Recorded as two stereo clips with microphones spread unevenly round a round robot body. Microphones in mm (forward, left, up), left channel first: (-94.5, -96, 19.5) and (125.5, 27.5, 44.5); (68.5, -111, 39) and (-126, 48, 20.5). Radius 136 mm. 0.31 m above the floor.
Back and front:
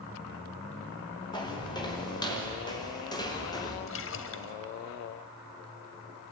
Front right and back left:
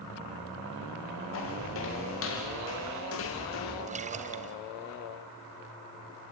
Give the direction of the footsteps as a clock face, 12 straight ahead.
3 o'clock.